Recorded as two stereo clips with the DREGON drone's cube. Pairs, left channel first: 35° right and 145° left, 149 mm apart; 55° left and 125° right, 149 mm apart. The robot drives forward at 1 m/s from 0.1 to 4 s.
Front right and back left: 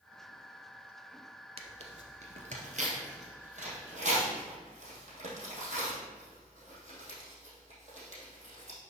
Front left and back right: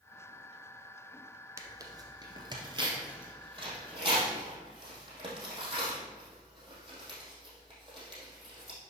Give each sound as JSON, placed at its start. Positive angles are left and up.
{"t": 1.6, "sound": "tearing paper", "azimuth_deg": 175, "distance_m": 0.9}